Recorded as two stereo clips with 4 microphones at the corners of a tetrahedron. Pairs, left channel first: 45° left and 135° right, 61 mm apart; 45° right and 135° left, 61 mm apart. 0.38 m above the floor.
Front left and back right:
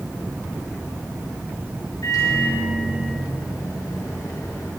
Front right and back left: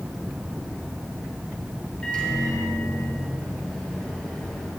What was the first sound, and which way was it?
A microwave, 25° left.